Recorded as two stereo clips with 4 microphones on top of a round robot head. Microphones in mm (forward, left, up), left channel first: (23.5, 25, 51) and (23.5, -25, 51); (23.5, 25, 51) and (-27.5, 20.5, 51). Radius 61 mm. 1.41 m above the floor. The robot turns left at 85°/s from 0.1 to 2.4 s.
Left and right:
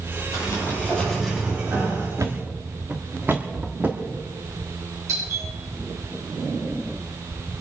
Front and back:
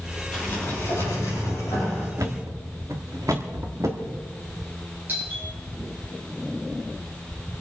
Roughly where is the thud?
Behind right.